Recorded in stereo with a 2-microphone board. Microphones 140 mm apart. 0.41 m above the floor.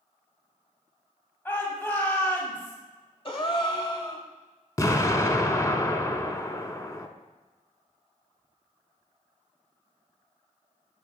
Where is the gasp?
40° left (ahead or behind), 0.8 m.